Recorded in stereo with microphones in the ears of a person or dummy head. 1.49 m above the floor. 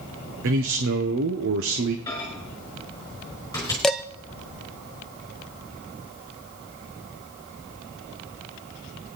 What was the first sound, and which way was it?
A man speaking, 60° right (ahead or behind).